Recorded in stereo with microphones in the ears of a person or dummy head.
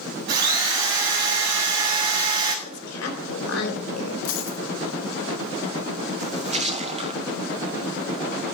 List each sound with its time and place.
0.3 s a drill: 50° right (ahead or behind), 3 m
2.6 s a woman speaking: 85° left, 3 m
4.2 s a dropped coin: 70° left (ahead or behind), 2.5 m
6.2 s a splash: 30° right (ahead or behind), 0.6 m